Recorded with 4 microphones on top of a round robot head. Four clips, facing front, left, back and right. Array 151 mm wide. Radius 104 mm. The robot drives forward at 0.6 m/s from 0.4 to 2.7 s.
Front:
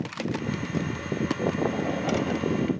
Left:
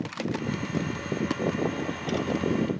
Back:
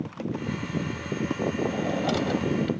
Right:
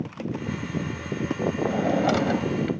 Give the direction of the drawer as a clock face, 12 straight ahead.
3 o'clock.